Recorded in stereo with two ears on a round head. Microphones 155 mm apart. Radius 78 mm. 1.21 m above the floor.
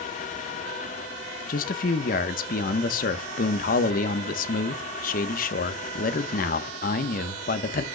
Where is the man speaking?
50° left (ahead or behind), 1.0 m.